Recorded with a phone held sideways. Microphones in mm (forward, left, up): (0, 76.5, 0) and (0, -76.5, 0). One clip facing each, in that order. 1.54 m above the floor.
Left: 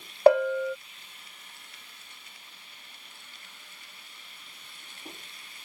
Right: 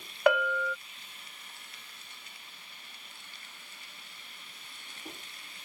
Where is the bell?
35° left (ahead or behind).